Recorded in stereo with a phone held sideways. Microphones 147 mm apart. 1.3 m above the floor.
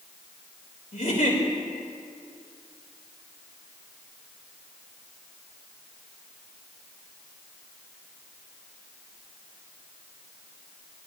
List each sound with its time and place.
0.9 s a giggle: 75° left (ahead or behind), 3.5 m